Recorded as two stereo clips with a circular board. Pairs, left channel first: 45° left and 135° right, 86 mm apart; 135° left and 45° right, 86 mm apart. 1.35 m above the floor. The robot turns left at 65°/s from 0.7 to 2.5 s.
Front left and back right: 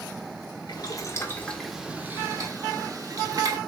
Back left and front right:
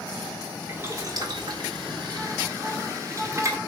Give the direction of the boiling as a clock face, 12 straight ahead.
11 o'clock.